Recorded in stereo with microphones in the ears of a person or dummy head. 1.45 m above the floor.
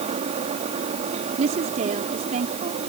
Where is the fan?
35° right (ahead or behind).